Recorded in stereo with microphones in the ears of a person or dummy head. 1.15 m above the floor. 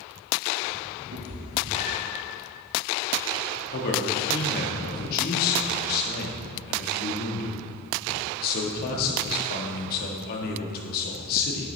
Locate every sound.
1.1 s a cat meowing: 70° right (ahead or behind), 2.5 m; by 2.2 s 45° right (ahead or behind), 2.5 m
3.7 s a man speaking: 50° left (ahead or behind), 1.7 m